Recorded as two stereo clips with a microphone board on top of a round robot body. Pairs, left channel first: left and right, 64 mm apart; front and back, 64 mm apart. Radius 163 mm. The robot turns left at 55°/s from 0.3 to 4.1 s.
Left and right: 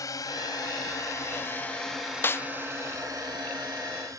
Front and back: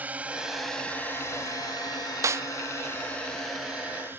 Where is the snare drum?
145° left; by 2.5 s 130° left.